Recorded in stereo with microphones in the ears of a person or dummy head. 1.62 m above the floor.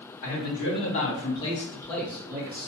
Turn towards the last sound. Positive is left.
turn(degrees=-35)  # may be behind; listen again after turning